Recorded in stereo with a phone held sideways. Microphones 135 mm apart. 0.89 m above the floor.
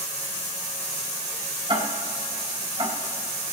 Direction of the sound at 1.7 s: 40° right (ahead or behind).